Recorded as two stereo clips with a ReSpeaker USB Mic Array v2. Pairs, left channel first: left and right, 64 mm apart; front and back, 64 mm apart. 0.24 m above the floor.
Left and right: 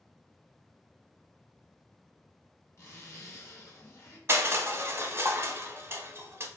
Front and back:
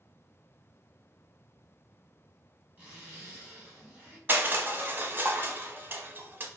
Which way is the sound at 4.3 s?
130° right.